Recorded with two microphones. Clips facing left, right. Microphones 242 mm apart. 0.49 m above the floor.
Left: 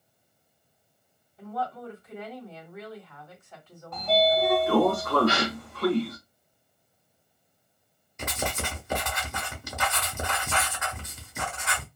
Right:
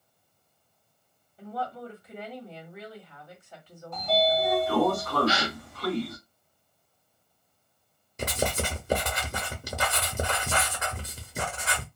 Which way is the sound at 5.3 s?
55° left (ahead or behind).